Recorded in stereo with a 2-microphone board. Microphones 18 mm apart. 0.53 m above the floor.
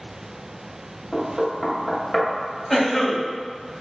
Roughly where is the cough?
Centre.